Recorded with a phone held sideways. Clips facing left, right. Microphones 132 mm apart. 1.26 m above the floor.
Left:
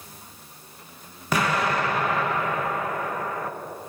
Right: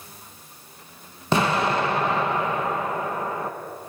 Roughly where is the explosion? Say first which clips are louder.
Right 2 dB; right.